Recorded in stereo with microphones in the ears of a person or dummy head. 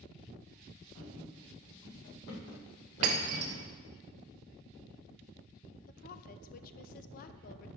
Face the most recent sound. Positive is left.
turn(degrees=45)  # may be behind; listen again after turning